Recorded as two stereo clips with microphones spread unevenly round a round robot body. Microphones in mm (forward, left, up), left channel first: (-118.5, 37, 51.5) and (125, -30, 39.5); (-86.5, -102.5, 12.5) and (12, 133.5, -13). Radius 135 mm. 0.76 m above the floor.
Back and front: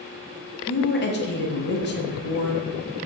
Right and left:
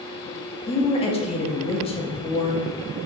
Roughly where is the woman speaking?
Behind.